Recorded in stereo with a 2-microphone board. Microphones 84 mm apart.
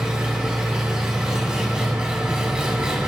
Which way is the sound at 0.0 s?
10° right (ahead or behind).